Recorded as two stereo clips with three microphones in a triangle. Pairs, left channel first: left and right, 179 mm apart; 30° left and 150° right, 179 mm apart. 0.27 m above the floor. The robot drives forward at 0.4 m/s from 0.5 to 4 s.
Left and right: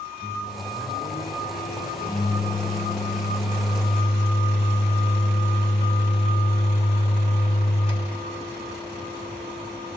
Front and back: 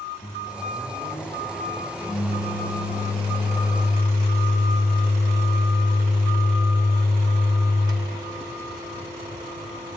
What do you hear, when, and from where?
0.2 s a microwave: 95° left, 1.3 m; by 10.0 s 145° left, 2.0 m